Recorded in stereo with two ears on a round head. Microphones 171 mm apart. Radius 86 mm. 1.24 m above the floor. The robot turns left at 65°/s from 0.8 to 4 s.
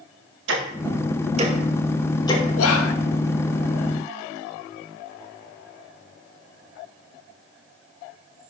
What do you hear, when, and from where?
0.5 s ticking: 70° right (ahead or behind), 1.9 m; by 2.5 s 30° left (ahead or behind), 1.9 m
2.6 s whispering: 85° left, 1.4 m; by 2.9 s 70° left (ahead or behind), 1.4 m